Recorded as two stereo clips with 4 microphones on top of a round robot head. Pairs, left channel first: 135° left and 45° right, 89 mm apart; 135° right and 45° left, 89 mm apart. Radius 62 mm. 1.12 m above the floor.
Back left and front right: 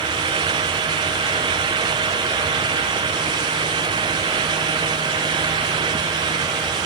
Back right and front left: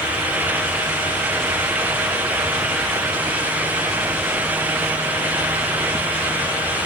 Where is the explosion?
I don't hear an explosion.